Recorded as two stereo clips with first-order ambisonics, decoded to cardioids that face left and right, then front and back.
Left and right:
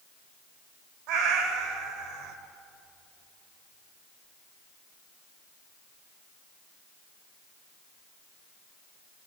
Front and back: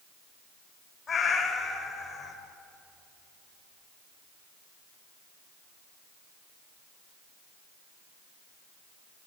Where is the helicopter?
I don't hear a helicopter.